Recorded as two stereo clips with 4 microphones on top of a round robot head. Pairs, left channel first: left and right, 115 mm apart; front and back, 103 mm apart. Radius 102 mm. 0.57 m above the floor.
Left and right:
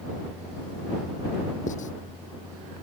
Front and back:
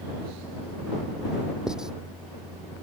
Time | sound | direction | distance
1.7 | writing | 95° left | ?